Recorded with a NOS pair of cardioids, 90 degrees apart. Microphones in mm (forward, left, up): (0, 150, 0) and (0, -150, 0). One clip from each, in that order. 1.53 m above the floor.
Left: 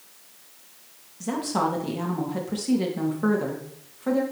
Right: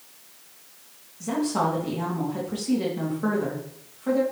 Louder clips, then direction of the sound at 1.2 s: Right 1 dB; 25° left.